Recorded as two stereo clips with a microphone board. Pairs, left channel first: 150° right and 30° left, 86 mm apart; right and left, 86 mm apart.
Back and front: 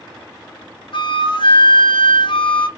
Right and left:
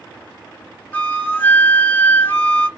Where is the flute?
160° right, 0.6 m.